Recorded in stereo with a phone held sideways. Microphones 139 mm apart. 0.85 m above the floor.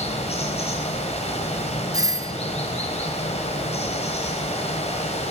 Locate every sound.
0.0 s running water: 50° left (ahead or behind), 4.5 m
1.9 s a doorbell: 25° right (ahead or behind), 1.2 m